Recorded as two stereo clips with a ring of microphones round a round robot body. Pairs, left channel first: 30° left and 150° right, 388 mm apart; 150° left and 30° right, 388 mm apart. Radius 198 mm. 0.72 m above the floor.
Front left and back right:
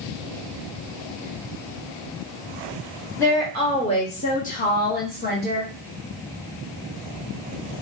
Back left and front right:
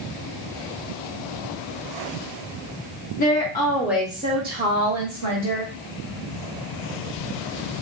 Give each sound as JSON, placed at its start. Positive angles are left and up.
{"t": 3.2, "sound": "a woman speaking", "azimuth_deg": 105, "distance_m": 1.2}